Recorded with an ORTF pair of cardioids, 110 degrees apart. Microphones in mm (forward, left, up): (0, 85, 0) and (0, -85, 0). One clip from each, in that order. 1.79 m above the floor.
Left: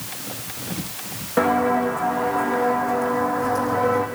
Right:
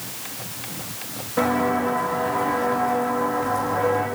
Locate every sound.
1.4 s footsteps: 50° left, 6 m; by 4.1 s 35° left, 4 m